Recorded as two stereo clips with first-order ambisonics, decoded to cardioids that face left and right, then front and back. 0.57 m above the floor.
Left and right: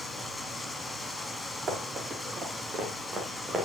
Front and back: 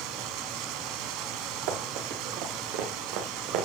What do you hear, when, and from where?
0.0 s running water: 170° left, 0.9 m
1.7 s running footsteps: 160° right, 4 m; by 3.6 s 170° right, 2 m